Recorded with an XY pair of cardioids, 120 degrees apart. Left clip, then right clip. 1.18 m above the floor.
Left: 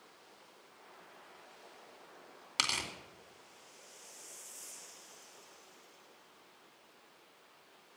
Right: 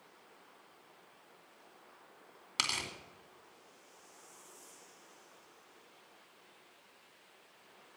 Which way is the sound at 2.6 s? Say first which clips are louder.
Left 1 dB; 15° left.